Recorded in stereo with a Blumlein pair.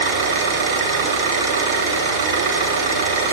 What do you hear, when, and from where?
0.0 s an engine running: 50° right, 9 m